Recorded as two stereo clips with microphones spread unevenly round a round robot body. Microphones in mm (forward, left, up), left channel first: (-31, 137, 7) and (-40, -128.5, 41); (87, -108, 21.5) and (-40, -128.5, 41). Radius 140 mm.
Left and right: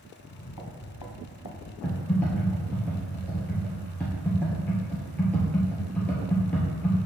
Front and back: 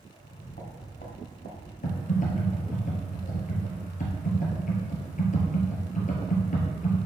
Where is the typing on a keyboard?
Straight ahead, 2.0 m.